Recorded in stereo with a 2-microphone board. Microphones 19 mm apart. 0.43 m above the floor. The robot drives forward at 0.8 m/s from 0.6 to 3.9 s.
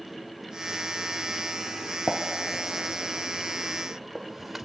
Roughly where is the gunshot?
Centre.